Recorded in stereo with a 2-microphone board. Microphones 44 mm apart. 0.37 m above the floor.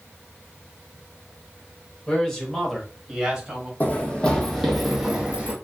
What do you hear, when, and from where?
2.1 s a man speaking: 20° left (ahead or behind), 1.0 m; by 3.7 s 15° right (ahead or behind), 1.7 m
3.8 s running footsteps: 35° left (ahead or behind), 1.0 m; by 5.5 s 25° right (ahead or behind), 1.2 m